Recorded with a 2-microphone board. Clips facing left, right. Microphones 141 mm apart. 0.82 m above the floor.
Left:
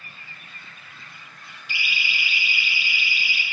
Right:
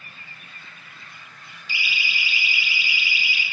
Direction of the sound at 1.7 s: 60° left (ahead or behind).